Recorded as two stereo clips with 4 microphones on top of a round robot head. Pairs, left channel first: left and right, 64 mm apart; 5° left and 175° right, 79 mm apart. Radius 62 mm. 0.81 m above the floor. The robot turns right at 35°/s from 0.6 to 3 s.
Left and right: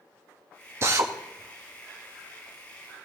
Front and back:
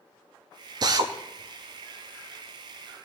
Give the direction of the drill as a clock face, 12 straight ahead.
5 o'clock.